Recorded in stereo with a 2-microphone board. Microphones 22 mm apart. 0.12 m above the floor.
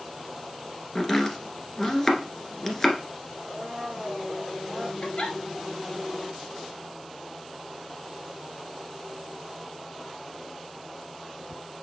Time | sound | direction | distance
0.9 | chopping | 20° left (ahead or behind) | 1.4 m
3.4 | a blender | 30° right (ahead or behind) | 3 m
5.0 | a giggle | 55° left (ahead or behind) | 1.8 m